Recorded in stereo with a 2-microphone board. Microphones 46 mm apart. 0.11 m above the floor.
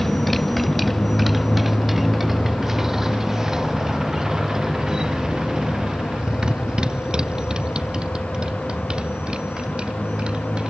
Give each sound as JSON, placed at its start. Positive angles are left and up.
{"t": 0.0, "sound": "a motorcycle", "side_deg": 5}